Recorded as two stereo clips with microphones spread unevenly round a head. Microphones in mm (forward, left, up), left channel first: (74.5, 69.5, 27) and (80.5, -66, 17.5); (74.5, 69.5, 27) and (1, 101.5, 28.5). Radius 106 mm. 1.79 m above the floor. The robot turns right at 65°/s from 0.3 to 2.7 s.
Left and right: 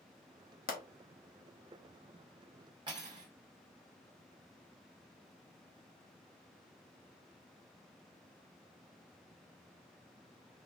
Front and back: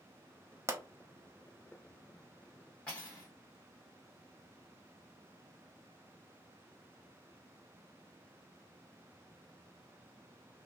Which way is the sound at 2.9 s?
90° right.